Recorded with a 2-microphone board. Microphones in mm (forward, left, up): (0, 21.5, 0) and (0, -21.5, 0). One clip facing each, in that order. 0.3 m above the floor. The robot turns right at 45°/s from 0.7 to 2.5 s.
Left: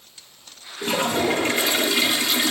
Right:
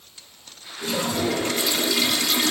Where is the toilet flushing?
85° left, 0.6 m; by 2.5 s 160° left, 0.6 m.